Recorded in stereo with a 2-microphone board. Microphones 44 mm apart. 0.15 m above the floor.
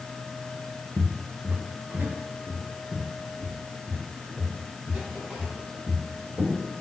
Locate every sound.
1.0 s footsteps: 70° right (ahead or behind), 0.8 m; by 6.6 s 20° right (ahead or behind), 6.5 m